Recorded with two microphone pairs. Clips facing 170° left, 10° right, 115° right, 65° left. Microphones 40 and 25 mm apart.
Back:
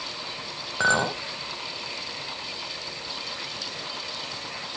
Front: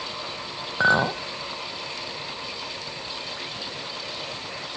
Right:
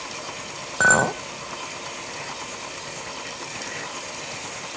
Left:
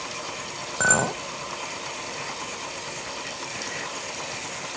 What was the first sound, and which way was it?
A clink, 75° right.